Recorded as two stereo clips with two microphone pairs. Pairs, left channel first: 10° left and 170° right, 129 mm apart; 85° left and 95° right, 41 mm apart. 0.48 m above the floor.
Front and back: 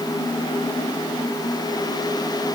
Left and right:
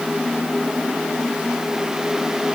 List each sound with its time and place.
Only background noise.